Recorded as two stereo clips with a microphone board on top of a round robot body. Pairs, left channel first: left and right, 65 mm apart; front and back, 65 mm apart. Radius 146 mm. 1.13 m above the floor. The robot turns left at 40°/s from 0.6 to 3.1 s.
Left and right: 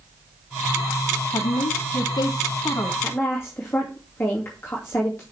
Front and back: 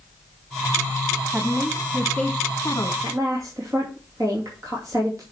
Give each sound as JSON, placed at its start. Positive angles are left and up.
{"t": 1.3, "sound": "a woman speaking", "azimuth_deg": 105, "distance_m": 0.8}
{"t": 3.0, "sound": "a woman speaking", "azimuth_deg": 150, "distance_m": 2.5}